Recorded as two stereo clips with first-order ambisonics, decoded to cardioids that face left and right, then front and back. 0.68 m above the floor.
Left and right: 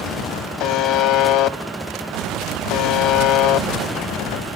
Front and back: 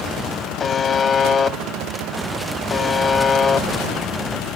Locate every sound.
0.6 s a buzzer: 65° left, 0.7 m